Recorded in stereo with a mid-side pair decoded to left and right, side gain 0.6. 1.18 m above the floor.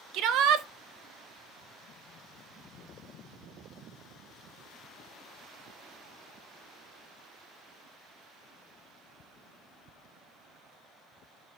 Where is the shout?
65° right, 0.6 m.